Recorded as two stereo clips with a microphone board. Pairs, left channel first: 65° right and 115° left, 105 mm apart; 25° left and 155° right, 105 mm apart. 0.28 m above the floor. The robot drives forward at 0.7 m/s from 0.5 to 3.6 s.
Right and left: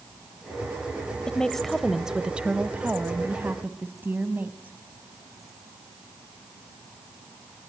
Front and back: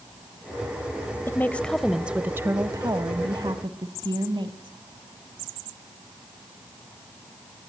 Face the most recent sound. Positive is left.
turn(degrees=180)